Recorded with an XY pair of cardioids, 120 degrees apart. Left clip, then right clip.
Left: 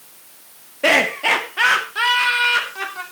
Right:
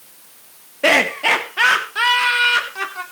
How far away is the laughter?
About 2 m.